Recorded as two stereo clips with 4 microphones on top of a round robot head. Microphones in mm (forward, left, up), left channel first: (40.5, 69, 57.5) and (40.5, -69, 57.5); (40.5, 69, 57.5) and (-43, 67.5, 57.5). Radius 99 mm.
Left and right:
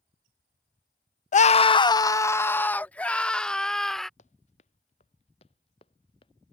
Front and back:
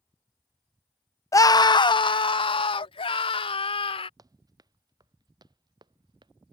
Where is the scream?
55° left; by 4.1 s straight ahead.